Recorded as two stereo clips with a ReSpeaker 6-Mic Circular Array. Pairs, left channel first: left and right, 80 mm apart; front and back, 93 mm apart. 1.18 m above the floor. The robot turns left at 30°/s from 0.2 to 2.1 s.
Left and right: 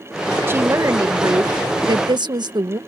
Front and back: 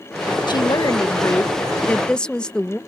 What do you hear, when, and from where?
0.5 s a woman speaking: 30° right; by 2.8 s 80° right